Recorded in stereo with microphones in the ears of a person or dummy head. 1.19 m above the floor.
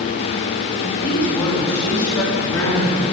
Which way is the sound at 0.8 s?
10° left (ahead or behind).